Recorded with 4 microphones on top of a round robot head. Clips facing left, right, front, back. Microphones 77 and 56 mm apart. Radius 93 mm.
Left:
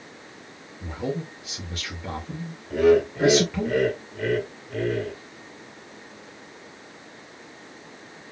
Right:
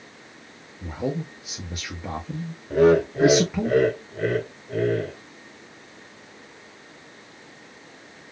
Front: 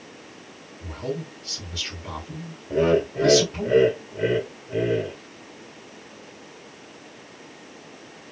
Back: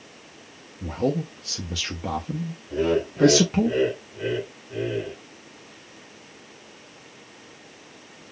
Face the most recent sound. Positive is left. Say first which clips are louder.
# right 1 dB, front 3 dB
turn(degrees=-35)